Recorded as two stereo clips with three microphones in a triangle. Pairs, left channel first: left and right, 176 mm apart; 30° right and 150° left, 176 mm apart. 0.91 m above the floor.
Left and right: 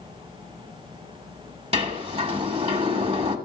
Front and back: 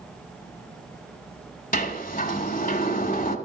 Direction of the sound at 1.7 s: 45° right.